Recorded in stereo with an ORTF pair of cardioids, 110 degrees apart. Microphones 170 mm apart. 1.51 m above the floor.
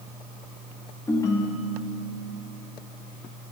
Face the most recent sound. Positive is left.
turn(degrees=20)